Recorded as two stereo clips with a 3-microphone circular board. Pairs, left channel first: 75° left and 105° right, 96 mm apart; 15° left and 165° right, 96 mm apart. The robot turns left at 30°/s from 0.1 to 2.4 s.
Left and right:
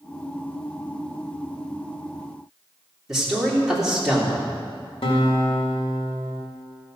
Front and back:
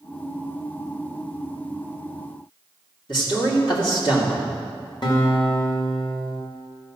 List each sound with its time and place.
3.1 s a man speaking: 20° right, 2.5 m
5.0 s a guitar: 60° left, 1.8 m